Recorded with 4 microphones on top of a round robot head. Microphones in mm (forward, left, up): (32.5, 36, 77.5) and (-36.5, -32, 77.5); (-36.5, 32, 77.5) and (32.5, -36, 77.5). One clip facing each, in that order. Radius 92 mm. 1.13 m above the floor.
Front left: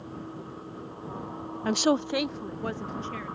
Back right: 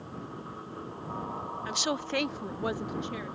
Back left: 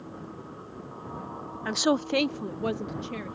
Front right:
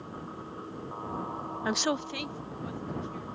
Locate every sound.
1.6 s a woman speaking: 25° left; by 3.4 s 150° left